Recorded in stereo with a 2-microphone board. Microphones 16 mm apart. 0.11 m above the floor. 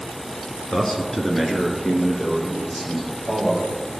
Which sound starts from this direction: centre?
A man speaking, at 0.7 s.